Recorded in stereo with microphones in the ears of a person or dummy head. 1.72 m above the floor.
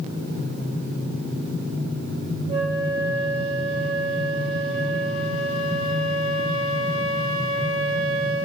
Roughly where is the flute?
Right.